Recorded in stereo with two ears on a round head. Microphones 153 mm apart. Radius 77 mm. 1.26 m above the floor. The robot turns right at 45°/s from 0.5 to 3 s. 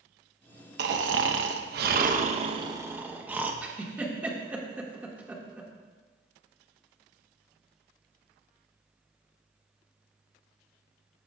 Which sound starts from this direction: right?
Snoring, at 0.8 s.